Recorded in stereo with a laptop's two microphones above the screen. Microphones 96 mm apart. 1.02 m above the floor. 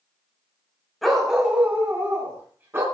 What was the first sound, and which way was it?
A dog barking, centre (ahead or behind).